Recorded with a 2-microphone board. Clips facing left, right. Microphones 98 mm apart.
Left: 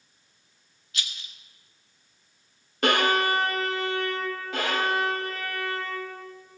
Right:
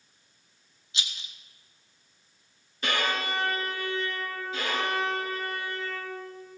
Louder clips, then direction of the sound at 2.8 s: Left 7 dB; 60° left (ahead or behind).